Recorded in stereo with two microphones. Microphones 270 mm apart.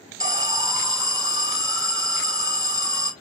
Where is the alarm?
15° right (ahead or behind), 1.3 m.